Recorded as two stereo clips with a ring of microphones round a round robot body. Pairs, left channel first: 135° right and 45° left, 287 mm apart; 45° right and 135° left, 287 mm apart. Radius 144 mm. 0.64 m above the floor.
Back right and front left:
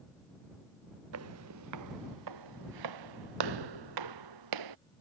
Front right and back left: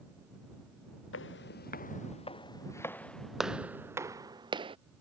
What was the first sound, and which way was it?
Footsteps, 5° left.